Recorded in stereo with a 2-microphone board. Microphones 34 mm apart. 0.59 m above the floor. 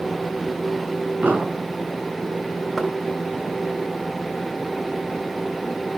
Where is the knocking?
5° right (ahead or behind), 2 m.